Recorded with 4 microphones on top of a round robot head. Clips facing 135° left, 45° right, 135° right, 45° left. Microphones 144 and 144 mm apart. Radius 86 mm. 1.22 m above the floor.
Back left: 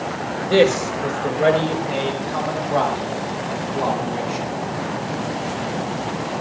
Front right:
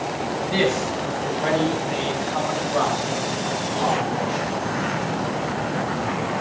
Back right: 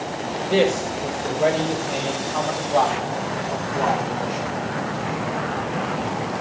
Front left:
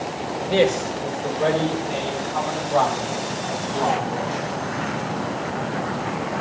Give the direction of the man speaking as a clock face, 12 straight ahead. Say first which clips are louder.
Back left 8 dB, even; 7 o'clock.